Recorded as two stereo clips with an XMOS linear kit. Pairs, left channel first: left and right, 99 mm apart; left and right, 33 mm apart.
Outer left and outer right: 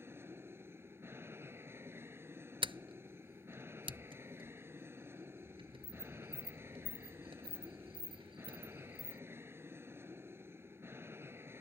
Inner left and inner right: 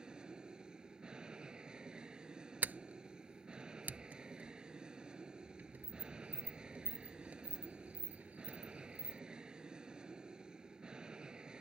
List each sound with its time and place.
0.0 s an aircraft: 25° right (ahead or behind)
2.6 s a sliding door: 65° right (ahead or behind)